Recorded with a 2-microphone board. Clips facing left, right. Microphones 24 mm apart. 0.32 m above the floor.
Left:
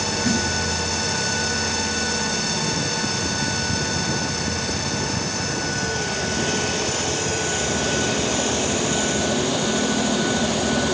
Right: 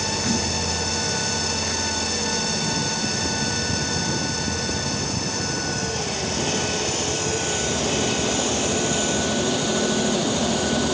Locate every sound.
0.2 s a snare drum: 10° left (ahead or behind), 3 m